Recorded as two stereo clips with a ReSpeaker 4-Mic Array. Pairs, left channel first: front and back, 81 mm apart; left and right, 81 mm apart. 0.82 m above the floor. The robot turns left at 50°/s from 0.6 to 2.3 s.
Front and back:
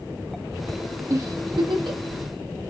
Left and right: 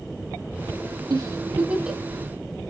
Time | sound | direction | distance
1.1 | a giggle | 130° right | 0.5 m